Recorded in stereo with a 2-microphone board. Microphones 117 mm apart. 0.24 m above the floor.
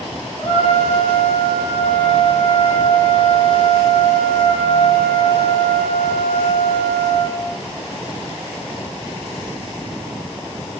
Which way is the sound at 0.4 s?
80° left.